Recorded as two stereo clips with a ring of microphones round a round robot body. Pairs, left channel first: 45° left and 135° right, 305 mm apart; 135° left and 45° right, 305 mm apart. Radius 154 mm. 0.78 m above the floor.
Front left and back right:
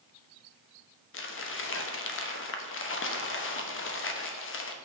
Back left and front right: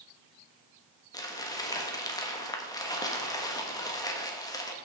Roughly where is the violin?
I don't hear a violin.